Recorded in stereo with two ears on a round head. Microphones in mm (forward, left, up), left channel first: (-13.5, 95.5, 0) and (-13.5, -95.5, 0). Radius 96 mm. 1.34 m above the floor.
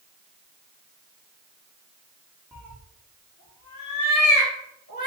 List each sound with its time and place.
2.5 s a cat meowing: centre (ahead or behind), 0.9 m; by 5.1 s 55° left (ahead or behind), 2 m